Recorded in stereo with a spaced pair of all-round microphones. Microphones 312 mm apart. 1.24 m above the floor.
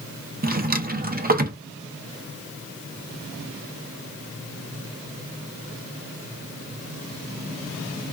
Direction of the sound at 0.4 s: 30° right (ahead or behind).